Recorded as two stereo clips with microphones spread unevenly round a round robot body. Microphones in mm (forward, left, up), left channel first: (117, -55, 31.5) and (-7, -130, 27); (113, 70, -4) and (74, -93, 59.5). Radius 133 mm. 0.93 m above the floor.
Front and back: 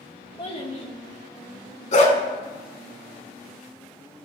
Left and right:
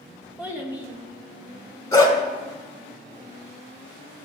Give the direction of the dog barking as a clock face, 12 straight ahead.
12 o'clock.